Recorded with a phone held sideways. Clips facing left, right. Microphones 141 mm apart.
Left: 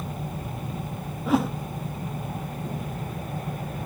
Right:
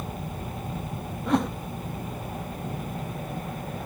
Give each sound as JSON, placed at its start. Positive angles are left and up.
{"t": 1.3, "sound": "a whoosh", "side_deg": 5}